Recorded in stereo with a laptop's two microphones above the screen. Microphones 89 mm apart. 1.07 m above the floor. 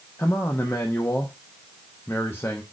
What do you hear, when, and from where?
0.2 s a man speaking: 25° left (ahead or behind), 0.5 m